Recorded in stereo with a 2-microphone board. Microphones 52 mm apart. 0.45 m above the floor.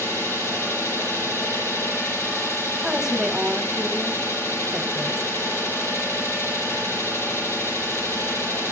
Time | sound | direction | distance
0.0 | an engine running | 40° left (ahead or behind) | 7 m
2.8 | a woman speaking | 10° right (ahead or behind) | 1.2 m